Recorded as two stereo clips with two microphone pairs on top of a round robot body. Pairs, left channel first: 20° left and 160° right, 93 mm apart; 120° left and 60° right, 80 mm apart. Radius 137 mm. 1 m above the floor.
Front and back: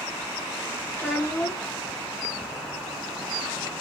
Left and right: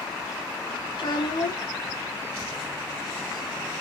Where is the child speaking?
90° left, 0.5 m.